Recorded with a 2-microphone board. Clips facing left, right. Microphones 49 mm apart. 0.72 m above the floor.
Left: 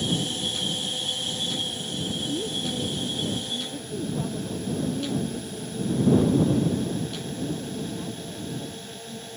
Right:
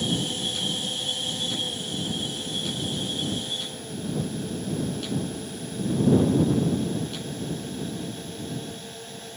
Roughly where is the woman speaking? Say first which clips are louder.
Left 3 dB; left.